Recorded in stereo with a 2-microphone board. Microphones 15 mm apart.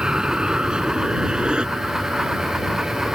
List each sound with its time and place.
0.0 s an aircraft: 60° right (ahead or behind); by 3.2 s 70° right (ahead or behind)